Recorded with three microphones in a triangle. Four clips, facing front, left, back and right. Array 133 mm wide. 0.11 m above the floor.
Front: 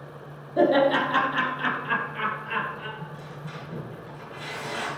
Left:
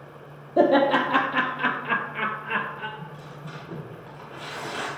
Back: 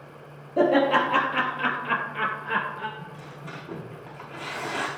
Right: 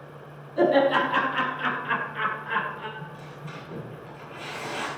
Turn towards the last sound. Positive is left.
turn(degrees=160)